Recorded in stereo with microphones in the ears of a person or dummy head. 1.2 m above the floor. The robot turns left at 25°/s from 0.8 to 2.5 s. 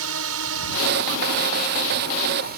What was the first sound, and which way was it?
A drone, 85° right.